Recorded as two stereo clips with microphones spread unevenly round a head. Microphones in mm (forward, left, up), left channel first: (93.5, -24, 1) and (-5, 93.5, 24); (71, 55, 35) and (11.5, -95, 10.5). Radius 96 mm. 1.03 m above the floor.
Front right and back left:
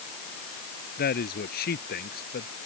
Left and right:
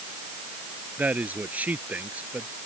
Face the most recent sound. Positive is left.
turn(degrees=-30)